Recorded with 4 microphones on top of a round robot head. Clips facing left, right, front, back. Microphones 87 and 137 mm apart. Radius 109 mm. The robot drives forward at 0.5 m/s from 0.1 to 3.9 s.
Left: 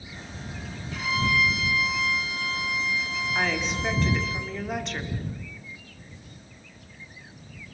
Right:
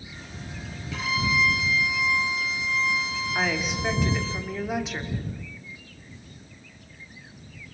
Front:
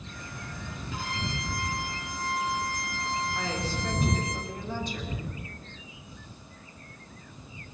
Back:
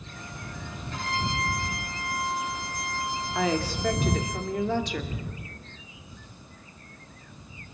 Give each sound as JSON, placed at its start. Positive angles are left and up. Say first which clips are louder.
{"t": 0.9, "sound": "a violin", "louder": "even, back 5 dB", "azimuth_deg": -85, "distance_m": 5.5}
{"t": 3.4, "sound": "a woman speaking", "louder": "even, back 6 dB", "azimuth_deg": -175, "distance_m": 2.5}